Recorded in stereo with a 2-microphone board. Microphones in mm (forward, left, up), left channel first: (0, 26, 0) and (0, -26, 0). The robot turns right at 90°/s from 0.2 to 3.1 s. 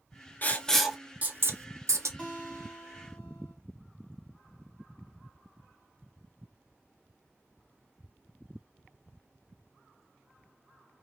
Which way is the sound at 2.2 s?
15° left.